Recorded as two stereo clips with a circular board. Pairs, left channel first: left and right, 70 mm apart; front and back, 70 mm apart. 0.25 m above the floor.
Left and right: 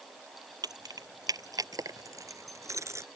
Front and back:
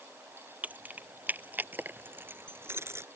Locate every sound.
0.6 s keys jangling: 115° right; by 3.1 s 135° right